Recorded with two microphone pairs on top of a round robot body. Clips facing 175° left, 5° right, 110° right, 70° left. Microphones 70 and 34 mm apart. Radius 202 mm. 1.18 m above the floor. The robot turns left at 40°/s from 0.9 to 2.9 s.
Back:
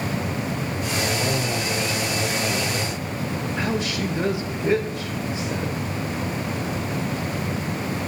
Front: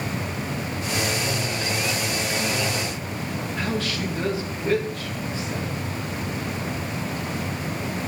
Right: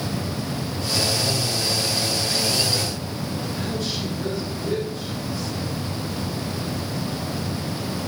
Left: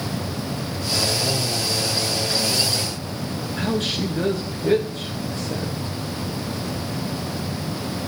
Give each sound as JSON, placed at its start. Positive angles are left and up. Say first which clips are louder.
{"t": 3.6, "sound": "a woman speaking", "louder": "back 1 dB, left 7 dB", "azimuth_deg": 105, "distance_m": 1.2}